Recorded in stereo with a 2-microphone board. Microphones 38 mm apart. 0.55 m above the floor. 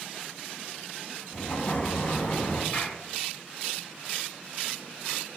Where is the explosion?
30° left (ahead or behind), 4 m.